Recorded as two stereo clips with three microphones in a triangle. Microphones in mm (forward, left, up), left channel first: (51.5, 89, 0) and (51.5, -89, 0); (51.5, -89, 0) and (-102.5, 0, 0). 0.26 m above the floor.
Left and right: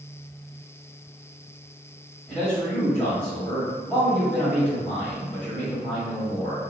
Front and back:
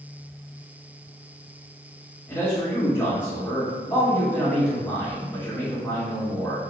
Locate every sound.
2.3 s a man speaking: 20° left, 1.3 m